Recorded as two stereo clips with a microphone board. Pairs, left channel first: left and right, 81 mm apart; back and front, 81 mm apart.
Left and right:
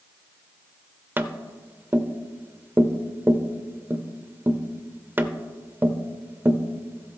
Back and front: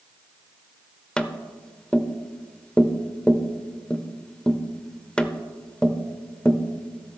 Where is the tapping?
115° right, 0.6 m.